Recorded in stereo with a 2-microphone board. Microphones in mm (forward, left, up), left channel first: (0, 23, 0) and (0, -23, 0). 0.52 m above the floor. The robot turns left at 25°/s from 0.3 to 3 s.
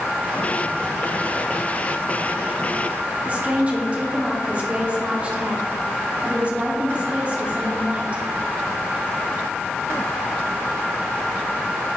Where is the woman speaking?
30° right (ahead or behind), 1.3 m.